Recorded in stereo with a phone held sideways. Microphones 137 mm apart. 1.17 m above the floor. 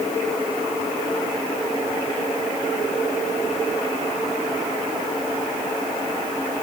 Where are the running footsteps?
No running footsteps in this recording.